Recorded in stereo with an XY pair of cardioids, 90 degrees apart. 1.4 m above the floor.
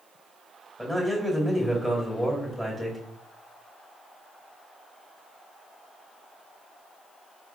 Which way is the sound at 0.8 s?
5° left.